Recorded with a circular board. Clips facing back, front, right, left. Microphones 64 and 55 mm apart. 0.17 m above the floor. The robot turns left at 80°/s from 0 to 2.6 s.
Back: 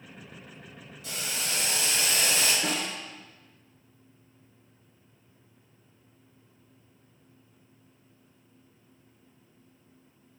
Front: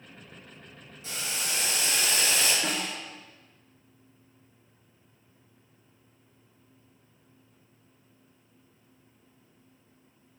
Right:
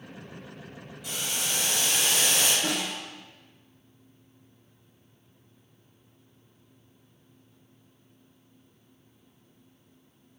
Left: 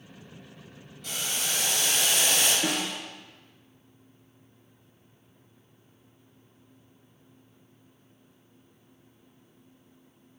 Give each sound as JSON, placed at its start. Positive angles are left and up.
{"t": 1.0, "sound": "boiling", "azimuth_deg": -10, "distance_m": 1.3}
{"t": 2.6, "sound": "a snare drum", "azimuth_deg": 105, "distance_m": 1.2}